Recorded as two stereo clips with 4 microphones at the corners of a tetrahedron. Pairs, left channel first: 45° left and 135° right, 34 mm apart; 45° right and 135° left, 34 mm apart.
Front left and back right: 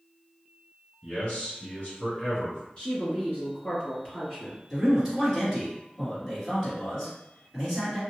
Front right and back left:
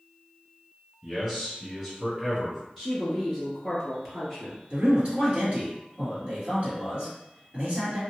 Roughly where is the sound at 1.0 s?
Ahead left.